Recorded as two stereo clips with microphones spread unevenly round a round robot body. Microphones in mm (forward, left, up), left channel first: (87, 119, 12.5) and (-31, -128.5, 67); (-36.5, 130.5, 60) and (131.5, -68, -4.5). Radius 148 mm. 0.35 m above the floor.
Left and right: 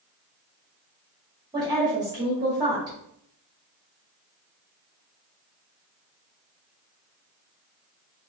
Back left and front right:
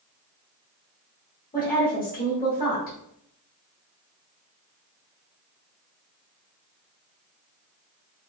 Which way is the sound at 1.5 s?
165° left.